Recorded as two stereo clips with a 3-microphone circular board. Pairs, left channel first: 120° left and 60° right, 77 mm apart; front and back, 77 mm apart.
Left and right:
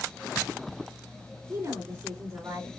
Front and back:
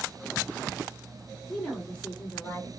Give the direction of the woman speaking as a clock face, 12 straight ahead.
3 o'clock.